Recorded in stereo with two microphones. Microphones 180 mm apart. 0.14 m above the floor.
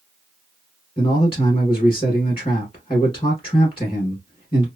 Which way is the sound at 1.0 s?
30° left (ahead or behind).